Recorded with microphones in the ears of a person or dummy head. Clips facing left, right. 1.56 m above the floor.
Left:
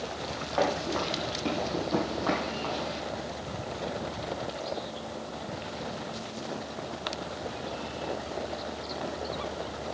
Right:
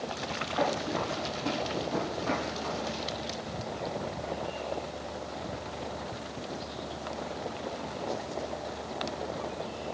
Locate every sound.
0.6 s running footsteps: 55° left (ahead or behind), 3.5 m